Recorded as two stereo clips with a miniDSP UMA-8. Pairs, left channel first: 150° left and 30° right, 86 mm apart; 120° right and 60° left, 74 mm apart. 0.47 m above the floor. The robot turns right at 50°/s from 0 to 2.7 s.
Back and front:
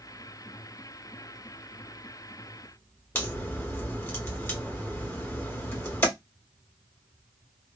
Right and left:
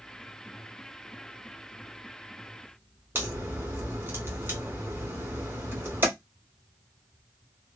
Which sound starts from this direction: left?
A crack, at 3.1 s.